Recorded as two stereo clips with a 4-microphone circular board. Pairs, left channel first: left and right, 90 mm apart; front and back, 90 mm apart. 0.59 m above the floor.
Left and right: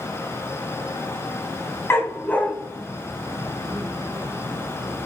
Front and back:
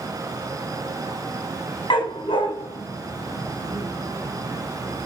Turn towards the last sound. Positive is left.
turn(degrees=-35)